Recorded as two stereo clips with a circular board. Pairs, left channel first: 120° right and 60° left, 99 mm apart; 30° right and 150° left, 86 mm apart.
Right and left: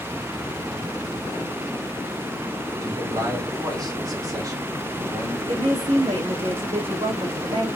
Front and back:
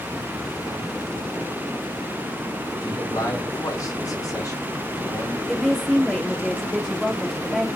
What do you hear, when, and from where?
2.8 s a man speaking: 10° left, 4 m
5.5 s a woman speaking: 60° left, 2 m